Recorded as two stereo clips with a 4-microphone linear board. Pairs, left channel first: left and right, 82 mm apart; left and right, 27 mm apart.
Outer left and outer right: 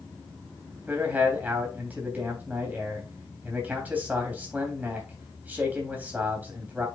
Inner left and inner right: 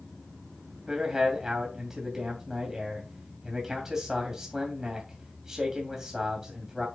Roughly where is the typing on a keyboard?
I don't hear typing on a keyboard.